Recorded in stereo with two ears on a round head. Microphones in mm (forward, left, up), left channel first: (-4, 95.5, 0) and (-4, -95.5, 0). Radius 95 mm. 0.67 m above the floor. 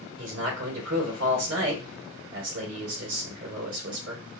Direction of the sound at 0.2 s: 65° right (ahead or behind).